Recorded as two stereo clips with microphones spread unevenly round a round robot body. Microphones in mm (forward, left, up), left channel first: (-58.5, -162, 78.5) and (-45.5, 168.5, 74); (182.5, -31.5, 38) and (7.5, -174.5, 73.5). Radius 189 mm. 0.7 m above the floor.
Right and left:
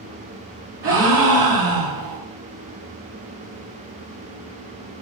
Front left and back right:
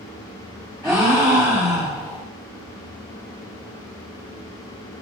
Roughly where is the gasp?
Behind left.